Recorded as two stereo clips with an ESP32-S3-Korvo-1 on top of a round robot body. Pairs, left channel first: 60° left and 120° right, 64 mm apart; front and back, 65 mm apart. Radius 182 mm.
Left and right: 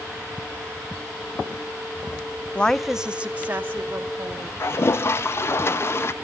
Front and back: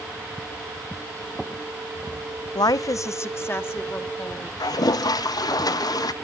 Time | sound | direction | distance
2.5 | a woman speaking | 5° right | 0.6 m
4.6 | a toilet flushing | 10° left | 0.7 m